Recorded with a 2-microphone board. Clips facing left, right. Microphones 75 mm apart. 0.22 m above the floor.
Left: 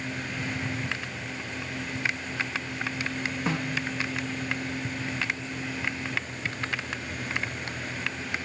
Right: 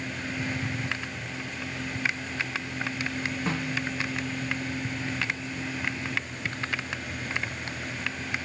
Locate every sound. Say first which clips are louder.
3.5 s a snare drum: left 2 dB; 10° left (ahead or behind), 5.5 m